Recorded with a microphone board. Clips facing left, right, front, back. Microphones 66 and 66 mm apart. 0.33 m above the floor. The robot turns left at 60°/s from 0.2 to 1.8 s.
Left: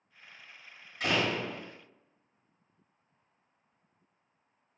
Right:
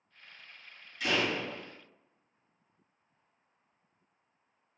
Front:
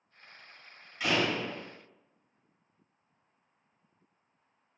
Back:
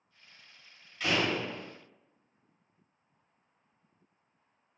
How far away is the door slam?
About 1.1 m.